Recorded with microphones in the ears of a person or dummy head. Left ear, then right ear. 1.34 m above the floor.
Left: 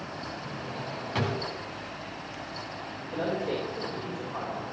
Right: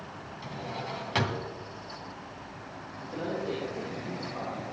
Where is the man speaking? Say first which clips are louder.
Left 3 dB; 40° left (ahead or behind), 4.5 m.